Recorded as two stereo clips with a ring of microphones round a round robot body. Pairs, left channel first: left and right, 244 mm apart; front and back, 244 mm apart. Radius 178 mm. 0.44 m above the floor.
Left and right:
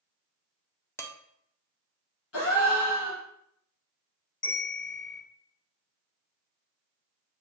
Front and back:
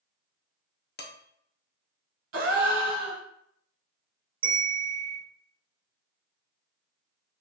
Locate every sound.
1.0 s dishes clattering: 15° left, 0.8 m
2.3 s a gasp: 145° left, 1.2 m
4.4 s a bell: 145° left, 1.2 m